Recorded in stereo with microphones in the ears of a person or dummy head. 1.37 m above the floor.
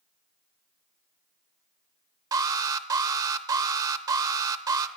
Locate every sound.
2.3 s an alarm: 15° right (ahead or behind), 0.9 m